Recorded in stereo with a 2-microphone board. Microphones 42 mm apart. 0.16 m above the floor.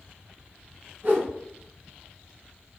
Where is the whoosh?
45° right (ahead or behind), 2.0 m.